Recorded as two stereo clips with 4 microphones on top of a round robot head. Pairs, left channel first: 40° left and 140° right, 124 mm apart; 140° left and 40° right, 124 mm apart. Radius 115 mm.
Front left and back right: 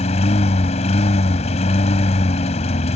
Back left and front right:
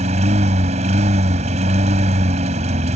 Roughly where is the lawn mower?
Ahead.